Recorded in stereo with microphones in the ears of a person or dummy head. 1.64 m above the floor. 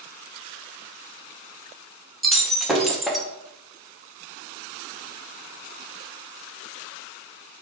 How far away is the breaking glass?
About 0.8 m.